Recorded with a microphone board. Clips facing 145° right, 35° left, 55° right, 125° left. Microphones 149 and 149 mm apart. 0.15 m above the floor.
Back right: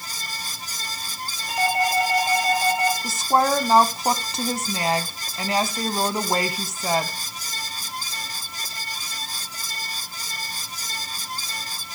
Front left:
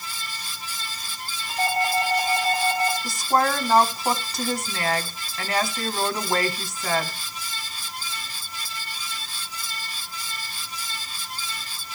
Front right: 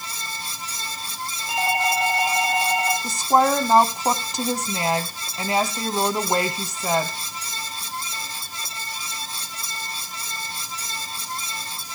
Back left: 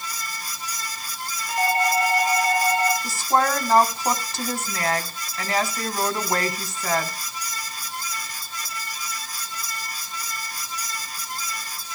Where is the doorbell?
125° right, 5.5 m.